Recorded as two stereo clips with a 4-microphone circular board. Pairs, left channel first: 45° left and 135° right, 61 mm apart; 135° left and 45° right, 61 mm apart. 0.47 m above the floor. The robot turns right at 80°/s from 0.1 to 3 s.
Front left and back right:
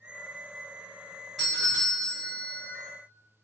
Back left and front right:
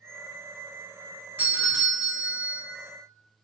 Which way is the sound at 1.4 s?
50° right.